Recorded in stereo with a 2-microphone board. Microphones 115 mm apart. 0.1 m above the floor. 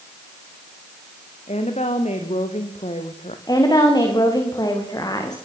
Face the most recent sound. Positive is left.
turn(degrees=35)  # may be behind; listen again after turning